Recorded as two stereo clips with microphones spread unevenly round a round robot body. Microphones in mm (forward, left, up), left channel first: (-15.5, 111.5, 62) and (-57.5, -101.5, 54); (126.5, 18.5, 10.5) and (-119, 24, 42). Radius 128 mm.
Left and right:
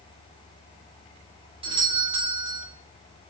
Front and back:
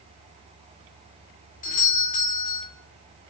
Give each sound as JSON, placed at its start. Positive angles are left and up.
{"t": 1.6, "sound": "a doorbell", "azimuth_deg": -45, "distance_m": 2.5}